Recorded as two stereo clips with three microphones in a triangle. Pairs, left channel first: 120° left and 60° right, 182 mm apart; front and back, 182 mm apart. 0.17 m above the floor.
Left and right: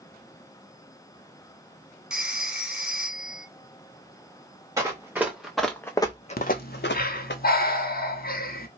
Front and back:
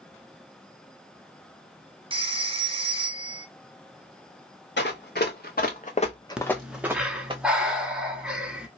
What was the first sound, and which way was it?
A phone ringing, 140° right.